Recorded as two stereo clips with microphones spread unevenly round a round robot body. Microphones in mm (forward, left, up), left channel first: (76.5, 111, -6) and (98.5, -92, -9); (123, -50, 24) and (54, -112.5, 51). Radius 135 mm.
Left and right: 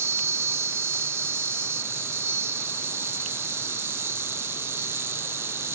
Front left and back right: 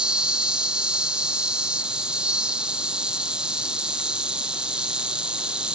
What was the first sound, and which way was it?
An insect, 30° right.